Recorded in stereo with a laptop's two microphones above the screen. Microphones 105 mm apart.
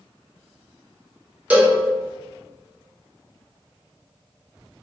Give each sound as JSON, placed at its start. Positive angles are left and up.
{"t": 1.5, "sound": "a cowbell", "side_deg": -15, "distance_m": 0.6}